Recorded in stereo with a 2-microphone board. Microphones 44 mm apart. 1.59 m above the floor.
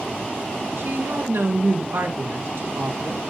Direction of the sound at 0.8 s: 80° right.